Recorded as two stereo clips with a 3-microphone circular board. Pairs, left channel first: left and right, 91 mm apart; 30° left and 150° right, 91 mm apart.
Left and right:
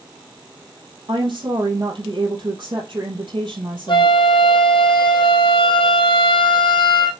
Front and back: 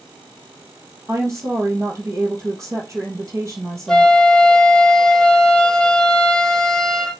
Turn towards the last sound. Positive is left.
turn(degrees=115)